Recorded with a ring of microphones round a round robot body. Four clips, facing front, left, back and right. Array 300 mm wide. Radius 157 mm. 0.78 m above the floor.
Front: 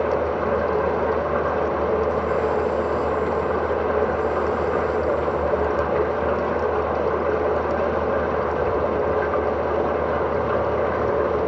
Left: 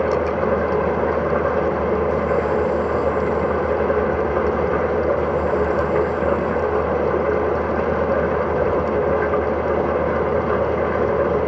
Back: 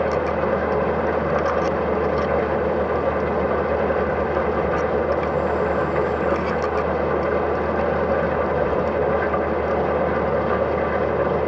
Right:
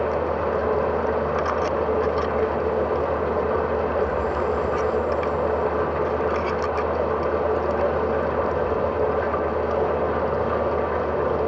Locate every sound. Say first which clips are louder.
0.0 s an engine running: left 4 dB, back 1 dB; 100° left, 8 m